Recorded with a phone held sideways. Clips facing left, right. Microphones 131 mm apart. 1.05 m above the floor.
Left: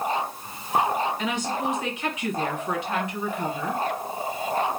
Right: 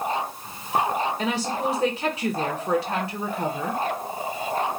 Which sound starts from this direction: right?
A woman speaking, at 1.2 s.